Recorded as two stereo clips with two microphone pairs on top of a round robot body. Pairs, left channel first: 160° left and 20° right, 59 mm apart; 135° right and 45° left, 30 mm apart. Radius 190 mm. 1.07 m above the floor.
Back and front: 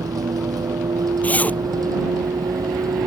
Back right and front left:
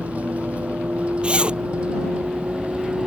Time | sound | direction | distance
0.0 | a vehicle | straight ahead | ?
1.2 | a zipper | 95° left | ?